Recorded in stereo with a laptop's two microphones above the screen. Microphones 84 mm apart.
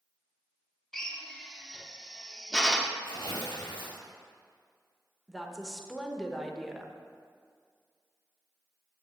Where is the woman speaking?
Centre (ahead or behind), 1.0 m.